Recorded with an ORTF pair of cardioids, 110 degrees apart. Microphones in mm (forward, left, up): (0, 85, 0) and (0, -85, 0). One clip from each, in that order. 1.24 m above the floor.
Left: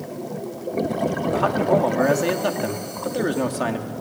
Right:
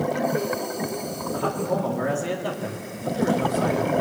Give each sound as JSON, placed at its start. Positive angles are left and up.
{"t": 1.3, "sound": "a man speaking", "azimuth_deg": 50, "distance_m": 3.0}